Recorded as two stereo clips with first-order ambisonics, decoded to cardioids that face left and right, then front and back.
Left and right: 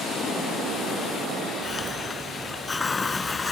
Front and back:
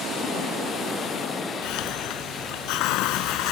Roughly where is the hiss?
Ahead.